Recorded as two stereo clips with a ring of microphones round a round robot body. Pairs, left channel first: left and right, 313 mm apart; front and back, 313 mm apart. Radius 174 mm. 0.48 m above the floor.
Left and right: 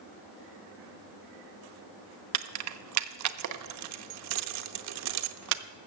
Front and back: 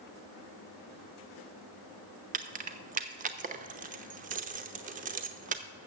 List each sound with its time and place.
2.3 s keys jangling: 115° right, 0.6 m